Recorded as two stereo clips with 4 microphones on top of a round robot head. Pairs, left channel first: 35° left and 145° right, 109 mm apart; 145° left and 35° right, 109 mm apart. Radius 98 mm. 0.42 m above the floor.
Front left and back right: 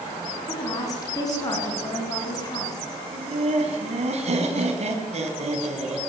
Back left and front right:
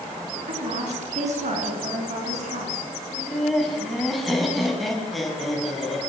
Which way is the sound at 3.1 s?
125° right.